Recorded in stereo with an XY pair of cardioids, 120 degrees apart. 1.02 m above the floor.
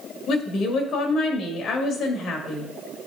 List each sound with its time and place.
0.3 s a woman speaking: 65° left, 1.5 m